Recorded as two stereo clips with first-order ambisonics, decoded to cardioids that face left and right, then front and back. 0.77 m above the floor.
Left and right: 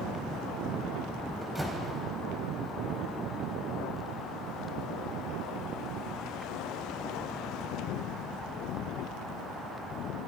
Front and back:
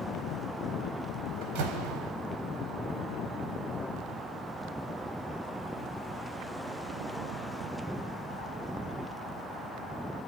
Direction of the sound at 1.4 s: 175° right.